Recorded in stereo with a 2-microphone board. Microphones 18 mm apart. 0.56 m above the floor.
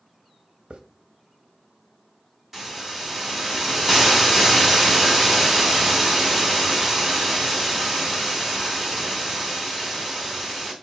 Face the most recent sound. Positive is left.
turn(degrees=-20)  # may be behind; listen again after turning